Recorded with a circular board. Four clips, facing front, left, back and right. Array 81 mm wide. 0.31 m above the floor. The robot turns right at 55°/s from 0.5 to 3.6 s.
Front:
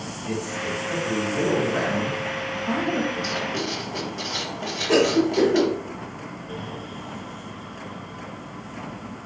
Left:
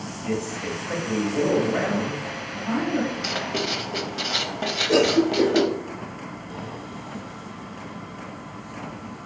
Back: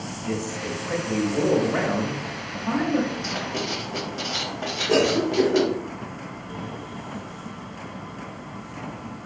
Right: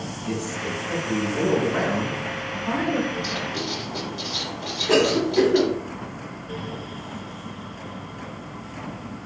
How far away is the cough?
About 1.7 m.